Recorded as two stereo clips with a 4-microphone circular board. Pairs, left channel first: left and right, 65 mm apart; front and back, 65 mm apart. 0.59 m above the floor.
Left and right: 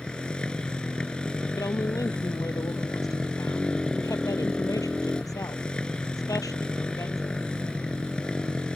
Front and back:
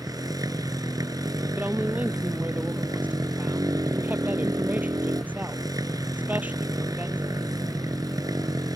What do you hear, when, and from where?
0.0 s a motorcycle: 165° left
1.6 s a woman speaking: 115° left